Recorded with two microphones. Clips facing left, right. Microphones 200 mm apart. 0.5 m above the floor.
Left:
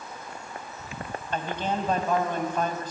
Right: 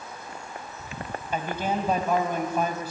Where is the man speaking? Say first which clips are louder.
Right 1 dB; 10° right (ahead or behind), 2.5 m.